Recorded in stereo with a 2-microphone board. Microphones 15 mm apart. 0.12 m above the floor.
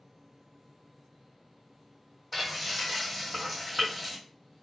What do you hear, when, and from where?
2.3 s frying: 10° left (ahead or behind), 1.5 m